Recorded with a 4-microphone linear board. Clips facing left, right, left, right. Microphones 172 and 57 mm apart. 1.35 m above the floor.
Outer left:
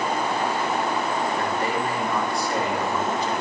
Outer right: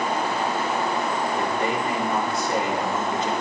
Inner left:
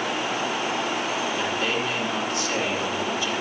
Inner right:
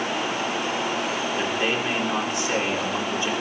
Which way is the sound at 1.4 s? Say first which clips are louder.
Outer right 1 dB, inner right 1 dB; 25° right (ahead or behind).